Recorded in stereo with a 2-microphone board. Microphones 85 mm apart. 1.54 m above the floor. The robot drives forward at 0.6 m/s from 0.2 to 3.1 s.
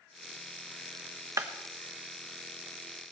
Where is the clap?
40° right (ahead or behind), 1.1 m.